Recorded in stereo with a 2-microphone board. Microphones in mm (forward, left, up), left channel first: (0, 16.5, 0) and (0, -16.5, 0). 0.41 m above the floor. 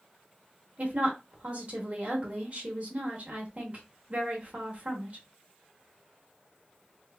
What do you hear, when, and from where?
0.8 s a woman speaking: 40° right (ahead or behind), 1.0 m